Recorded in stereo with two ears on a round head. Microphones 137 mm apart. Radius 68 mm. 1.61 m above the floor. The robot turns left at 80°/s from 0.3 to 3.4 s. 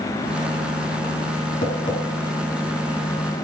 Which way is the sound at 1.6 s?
55° left (ahead or behind).